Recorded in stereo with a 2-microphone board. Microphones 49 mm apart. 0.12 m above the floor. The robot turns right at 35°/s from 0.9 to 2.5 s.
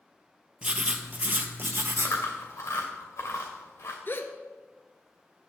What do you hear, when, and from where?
0.6 s writing: 155° right, 0.8 m; by 2.2 s 110° right, 0.8 m
2.0 s chewing: 80° left, 2 m; by 4.0 s 60° left (ahead or behind), 2 m
4.1 s a gasp: 45° left (ahead or behind), 0.8 m